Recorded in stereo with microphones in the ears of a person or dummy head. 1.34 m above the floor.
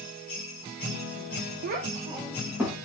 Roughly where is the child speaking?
Right.